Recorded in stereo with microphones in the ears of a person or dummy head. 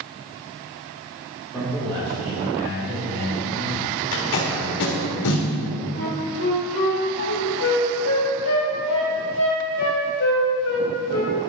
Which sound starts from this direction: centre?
A man speaking, at 1.5 s.